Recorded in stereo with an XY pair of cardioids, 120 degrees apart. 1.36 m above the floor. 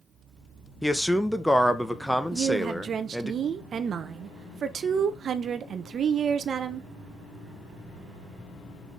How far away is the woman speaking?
About 0.6 m.